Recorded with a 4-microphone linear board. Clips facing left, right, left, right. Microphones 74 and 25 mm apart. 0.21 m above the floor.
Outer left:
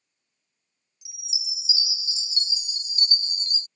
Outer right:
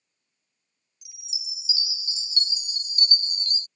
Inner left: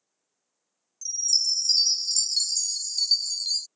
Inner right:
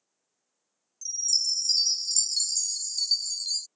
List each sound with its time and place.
1.0 s a chime: 20° left (ahead or behind)